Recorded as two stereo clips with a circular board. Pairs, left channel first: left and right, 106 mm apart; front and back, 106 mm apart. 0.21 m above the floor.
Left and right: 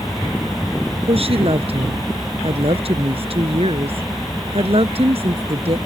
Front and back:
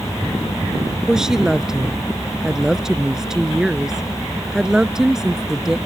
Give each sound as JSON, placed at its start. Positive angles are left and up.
{"t": 1.1, "sound": "a woman speaking", "azimuth_deg": -95}